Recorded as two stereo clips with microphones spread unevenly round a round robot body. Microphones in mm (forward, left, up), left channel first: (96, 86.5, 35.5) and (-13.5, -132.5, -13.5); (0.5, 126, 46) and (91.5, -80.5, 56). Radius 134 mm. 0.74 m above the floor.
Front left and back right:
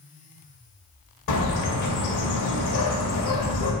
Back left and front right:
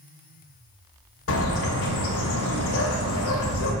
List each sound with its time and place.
1.3 s a bird: 95° left, 1.9 m